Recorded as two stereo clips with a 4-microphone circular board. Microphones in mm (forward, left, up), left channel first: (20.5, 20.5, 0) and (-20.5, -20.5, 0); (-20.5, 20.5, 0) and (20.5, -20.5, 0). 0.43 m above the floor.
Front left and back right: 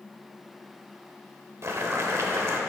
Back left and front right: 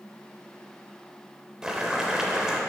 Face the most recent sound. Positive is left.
turn(degrees=-120)